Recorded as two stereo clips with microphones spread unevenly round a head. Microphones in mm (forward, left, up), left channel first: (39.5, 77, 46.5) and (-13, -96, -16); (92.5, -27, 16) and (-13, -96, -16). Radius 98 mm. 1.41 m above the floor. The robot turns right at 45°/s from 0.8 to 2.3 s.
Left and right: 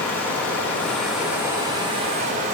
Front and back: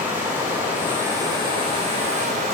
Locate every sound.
0.0 s running water: 120° left, 0.8 m; by 2.5 s 170° right, 0.8 m